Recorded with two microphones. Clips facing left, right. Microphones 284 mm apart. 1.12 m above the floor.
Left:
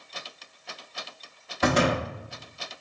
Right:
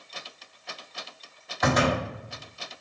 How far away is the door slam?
About 1.6 m.